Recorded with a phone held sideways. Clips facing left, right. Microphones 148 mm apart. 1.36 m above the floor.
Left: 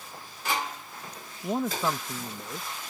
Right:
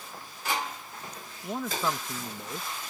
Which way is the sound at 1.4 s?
25° left (ahead or behind).